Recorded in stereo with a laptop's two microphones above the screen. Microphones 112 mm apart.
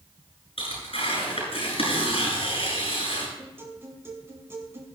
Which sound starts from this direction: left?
Tearing paper, at 0.6 s.